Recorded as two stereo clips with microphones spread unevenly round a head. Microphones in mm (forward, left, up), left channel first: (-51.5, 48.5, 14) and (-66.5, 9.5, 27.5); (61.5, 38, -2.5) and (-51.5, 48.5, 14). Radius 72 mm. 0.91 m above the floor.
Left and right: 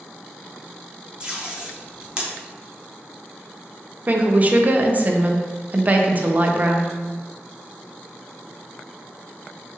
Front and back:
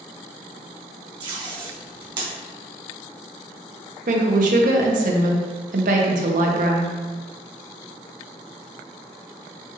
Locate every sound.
1.2 s tape being pulled: 150° right, 0.7 m
4.1 s a woman speaking: 165° right, 0.6 m